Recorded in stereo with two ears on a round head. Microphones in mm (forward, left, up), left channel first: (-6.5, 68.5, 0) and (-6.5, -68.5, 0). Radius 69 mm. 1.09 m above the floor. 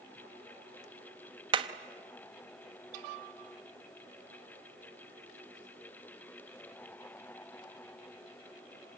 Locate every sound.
1.5 s hammering: 30° right (ahead or behind), 1.1 m